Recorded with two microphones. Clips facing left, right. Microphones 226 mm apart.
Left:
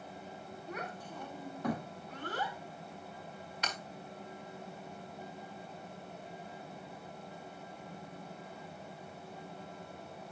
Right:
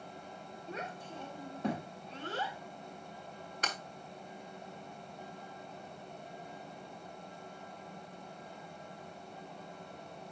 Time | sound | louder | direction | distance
0.7 | a child speaking | right 1 dB | 25° right (ahead or behind) | 1.2 m
3.6 | breaking glass | right 2 dB | 50° right (ahead or behind) | 1.6 m